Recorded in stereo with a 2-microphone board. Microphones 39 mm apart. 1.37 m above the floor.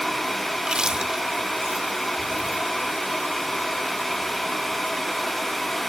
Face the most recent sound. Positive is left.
turn(degrees=-25)  # may be behind; listen again after turning